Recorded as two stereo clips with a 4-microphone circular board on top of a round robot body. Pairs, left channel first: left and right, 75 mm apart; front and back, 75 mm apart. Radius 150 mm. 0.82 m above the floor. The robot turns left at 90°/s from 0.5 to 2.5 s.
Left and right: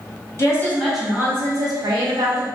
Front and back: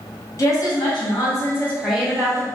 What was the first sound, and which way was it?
A woman speaking, 40° left.